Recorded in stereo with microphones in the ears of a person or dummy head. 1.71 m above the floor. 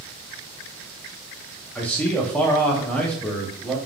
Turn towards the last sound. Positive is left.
turn(degrees=10)  # may be behind; listen again after turning